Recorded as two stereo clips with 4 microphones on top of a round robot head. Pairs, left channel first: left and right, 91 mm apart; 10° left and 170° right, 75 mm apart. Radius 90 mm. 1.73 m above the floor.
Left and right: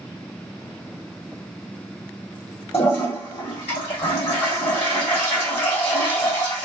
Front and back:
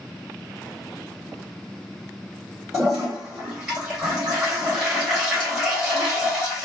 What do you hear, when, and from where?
2.7 s a toilet flushing: 105° left, 1.8 m